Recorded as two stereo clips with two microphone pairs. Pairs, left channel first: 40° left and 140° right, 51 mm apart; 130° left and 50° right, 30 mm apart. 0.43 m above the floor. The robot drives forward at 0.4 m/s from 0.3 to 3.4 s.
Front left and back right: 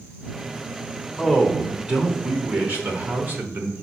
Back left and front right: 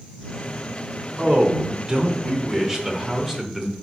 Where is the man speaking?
60° right, 1.1 m; by 3.7 s 135° right, 1.2 m.